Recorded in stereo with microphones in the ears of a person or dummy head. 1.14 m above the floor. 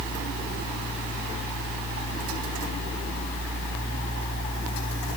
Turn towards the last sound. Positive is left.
No sound to turn to.